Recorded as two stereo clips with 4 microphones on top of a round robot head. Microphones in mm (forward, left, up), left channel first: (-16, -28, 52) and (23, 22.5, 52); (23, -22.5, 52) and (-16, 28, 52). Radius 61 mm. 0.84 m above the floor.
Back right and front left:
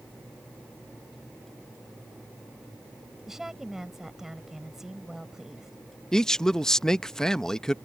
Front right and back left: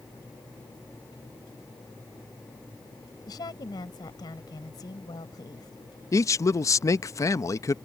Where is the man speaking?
50° right.